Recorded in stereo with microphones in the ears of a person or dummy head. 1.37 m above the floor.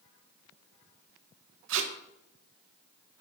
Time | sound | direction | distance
1.7 | tape being pulled | 70° right (ahead or behind) | 1.2 m